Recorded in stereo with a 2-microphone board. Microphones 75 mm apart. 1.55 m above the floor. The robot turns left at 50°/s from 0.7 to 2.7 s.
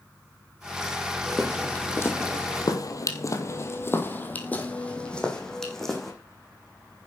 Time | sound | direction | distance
1.3 | footsteps | 10° right (ahead or behind) | 3.5 m